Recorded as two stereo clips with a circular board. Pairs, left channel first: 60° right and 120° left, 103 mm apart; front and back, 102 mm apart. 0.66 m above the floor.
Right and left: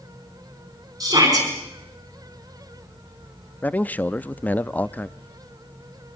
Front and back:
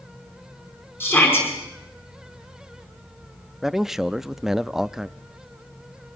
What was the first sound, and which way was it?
A shout, 70° left.